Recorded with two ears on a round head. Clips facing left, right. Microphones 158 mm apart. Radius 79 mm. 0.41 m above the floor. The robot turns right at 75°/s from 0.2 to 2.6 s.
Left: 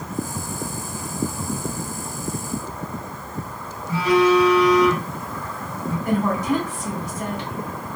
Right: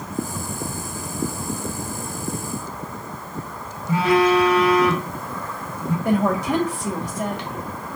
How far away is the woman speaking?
About 1.4 m.